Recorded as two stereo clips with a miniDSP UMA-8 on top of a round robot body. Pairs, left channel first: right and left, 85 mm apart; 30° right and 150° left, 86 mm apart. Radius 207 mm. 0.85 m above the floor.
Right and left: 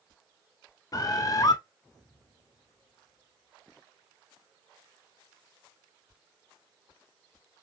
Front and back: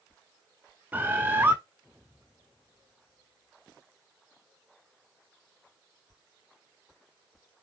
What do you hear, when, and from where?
0.9 s a bird: 140° right, 0.5 m